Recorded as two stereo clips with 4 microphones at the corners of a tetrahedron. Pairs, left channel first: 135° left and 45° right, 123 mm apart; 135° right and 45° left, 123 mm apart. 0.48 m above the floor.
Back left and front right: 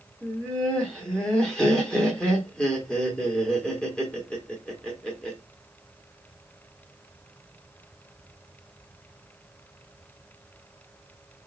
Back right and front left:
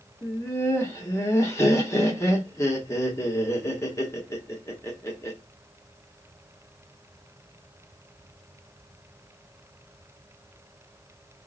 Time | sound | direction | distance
0.2 | laughter | 155° right | 0.9 m